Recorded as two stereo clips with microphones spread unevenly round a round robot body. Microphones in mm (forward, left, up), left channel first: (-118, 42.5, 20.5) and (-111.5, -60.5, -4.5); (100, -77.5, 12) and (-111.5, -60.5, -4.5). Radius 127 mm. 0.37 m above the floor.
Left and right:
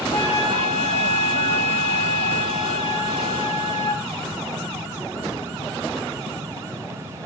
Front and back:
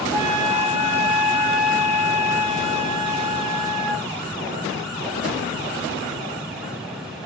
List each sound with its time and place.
0.1 s a flute: 75° left, 4 m